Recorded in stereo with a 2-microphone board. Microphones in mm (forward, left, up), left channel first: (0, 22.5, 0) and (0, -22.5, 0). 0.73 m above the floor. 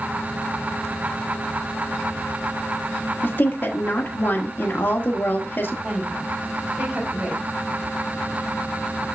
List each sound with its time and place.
3.2 s a woman speaking: 50° left (ahead or behind), 1.4 m
5.8 s a woman speaking: 25° right (ahead or behind), 5 m